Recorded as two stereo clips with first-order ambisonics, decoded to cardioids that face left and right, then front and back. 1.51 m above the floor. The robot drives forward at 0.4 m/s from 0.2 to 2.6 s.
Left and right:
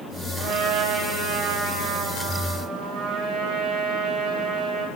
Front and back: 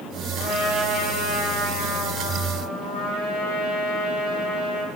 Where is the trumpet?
115° right, 8 m; by 4.9 s 120° right, 8.5 m.